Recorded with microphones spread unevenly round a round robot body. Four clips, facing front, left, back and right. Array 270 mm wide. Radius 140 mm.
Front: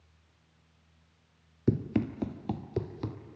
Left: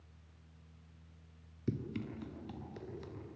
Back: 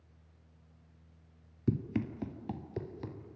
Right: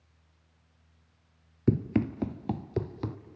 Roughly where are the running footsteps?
Right.